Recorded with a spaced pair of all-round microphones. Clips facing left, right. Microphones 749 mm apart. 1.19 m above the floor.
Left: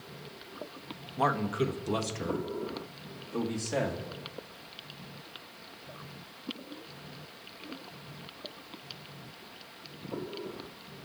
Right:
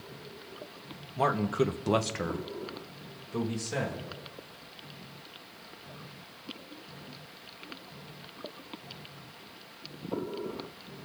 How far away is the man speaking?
About 1.3 m.